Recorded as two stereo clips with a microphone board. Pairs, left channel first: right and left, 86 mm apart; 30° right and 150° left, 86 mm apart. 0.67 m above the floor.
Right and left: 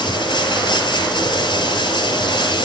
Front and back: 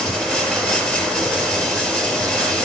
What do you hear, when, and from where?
0.0 s running water: 110° right, 4.5 m